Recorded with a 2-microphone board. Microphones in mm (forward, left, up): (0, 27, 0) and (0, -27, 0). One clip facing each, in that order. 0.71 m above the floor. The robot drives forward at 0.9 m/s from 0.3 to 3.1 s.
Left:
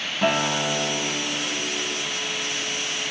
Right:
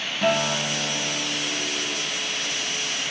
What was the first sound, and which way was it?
A guitar, 15° left (ahead or behind).